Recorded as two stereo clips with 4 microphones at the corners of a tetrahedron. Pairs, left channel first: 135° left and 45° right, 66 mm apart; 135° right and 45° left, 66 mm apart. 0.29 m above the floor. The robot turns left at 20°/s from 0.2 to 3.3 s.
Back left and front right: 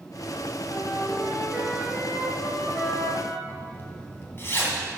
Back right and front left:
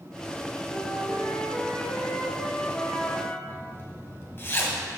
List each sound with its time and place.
0.7 s a flute: 115° right, 1.6 m; by 3.4 s 165° right, 1.6 m
3.5 s a zipper: straight behind, 1.9 m